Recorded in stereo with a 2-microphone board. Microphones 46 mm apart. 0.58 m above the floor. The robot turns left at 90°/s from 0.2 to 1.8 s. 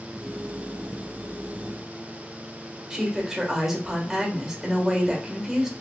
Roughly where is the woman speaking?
Centre.